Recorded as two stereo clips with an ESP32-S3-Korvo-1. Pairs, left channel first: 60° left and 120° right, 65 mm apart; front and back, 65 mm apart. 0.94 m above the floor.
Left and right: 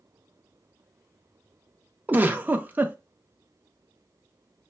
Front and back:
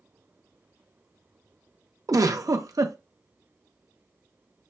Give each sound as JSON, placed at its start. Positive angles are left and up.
{"t": 2.1, "sound": "a giggle", "azimuth_deg": 180, "distance_m": 0.6}